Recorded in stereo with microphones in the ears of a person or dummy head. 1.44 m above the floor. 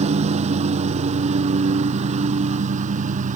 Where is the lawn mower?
30° right (ahead or behind); by 3.4 s 40° right (ahead or behind).